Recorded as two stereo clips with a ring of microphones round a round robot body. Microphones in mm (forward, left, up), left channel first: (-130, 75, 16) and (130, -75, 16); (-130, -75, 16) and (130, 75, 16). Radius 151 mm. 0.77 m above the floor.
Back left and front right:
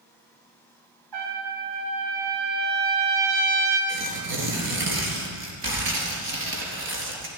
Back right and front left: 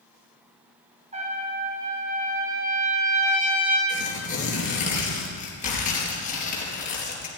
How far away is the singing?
No singing in this recording.